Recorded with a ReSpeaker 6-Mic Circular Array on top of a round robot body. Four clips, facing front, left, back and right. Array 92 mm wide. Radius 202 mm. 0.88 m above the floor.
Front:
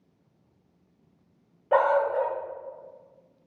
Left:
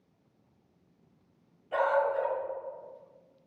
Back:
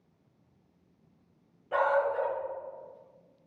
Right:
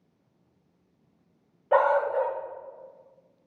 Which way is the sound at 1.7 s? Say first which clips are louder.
Right 5 dB, front 5 dB; 45° right.